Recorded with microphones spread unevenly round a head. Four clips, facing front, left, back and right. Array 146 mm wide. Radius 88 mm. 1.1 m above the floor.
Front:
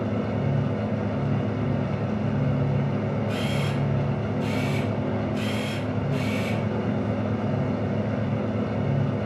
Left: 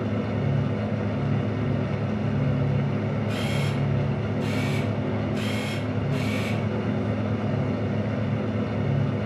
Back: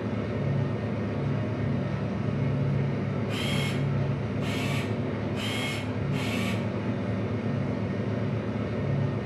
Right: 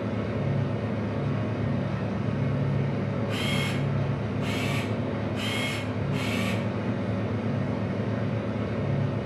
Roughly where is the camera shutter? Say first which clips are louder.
Left 1 dB, front 3 dB; left.